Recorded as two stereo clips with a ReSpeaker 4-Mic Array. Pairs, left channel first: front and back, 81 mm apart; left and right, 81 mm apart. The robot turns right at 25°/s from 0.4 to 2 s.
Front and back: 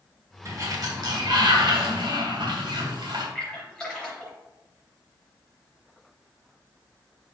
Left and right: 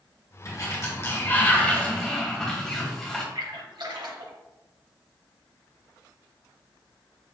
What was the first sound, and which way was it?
A sliding door, 135° left.